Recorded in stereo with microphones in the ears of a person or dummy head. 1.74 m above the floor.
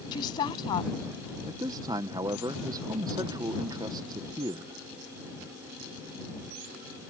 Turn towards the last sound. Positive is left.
turn(degrees=-20)  # may be behind; listen again after turning